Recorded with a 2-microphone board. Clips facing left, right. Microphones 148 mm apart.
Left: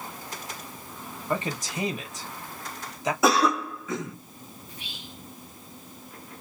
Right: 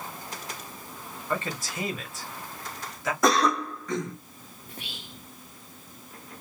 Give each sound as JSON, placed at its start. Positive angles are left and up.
{"t": 1.3, "sound": "a man speaking", "side_deg": 20, "distance_m": 1.1}
{"t": 3.2, "sound": "a cough", "side_deg": 5, "distance_m": 0.9}
{"t": 4.7, "sound": "whispering", "side_deg": -55, "distance_m": 0.6}